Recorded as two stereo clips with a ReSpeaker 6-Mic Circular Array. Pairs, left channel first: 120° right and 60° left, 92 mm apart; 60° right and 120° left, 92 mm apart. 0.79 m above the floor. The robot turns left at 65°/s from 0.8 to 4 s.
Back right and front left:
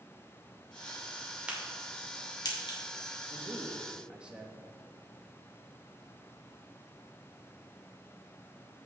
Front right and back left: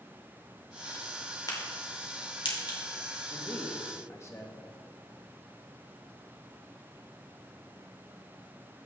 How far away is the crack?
About 2.5 m.